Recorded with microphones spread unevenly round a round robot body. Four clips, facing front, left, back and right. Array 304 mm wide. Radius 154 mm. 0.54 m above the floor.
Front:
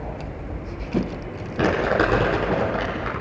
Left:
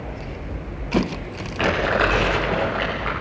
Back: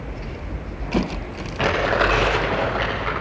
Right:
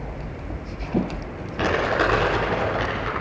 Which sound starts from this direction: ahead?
Crumpling, at 1.6 s.